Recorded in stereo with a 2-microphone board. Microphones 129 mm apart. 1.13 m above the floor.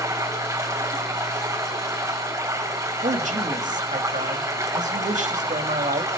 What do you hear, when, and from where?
0.0 s running water: 20° right (ahead or behind), 3.5 m
3.0 s a man speaking: 65° right (ahead or behind), 1.6 m